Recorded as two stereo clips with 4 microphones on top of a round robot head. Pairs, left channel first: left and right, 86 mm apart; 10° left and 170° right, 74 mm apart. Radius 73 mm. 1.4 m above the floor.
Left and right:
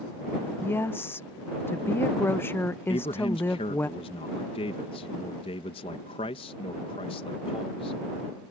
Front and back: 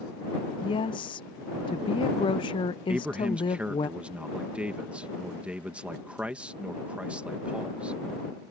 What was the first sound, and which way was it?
A woman speaking, 25° left.